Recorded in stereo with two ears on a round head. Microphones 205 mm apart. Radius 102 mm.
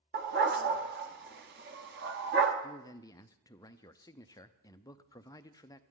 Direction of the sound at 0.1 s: 45° right (ahead or behind).